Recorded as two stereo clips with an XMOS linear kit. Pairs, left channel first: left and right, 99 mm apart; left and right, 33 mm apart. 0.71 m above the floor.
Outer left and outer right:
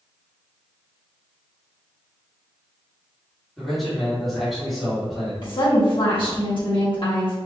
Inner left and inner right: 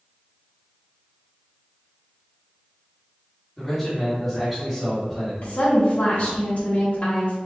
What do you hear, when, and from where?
3.6 s a man speaking: centre (ahead or behind), 1.8 m
5.4 s a woman speaking: 55° left (ahead or behind), 1.3 m